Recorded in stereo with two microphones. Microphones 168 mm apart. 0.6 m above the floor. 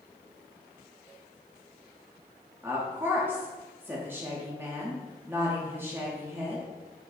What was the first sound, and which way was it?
A woman speaking, 15° right (ahead or behind).